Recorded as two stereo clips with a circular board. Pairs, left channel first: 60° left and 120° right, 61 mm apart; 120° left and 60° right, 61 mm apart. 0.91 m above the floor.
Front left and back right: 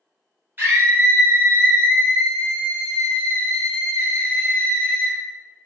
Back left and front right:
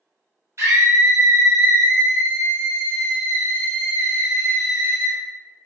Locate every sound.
0.6 s a scream: 75° right, 0.5 m